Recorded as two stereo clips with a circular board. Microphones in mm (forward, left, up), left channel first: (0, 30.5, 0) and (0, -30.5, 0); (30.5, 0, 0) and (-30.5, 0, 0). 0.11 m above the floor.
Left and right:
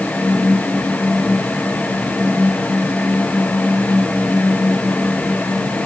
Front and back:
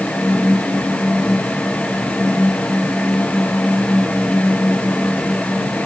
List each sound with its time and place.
Only background noise.